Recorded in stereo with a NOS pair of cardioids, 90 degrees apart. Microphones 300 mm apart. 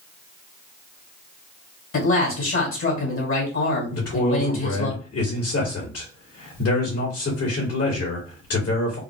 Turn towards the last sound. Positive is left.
turn(degrees=50)